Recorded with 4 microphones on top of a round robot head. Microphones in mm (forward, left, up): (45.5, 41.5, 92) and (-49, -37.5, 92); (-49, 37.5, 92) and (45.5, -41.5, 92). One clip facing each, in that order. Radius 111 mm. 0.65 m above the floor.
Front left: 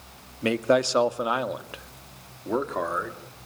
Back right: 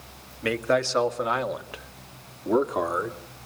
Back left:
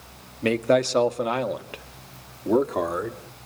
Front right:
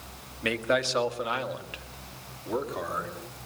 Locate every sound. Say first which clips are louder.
0.4 s a man speaking: front left 2 dB, back left 7 dB; 95° left, 2.0 m; by 3.2 s 155° left, 2.5 m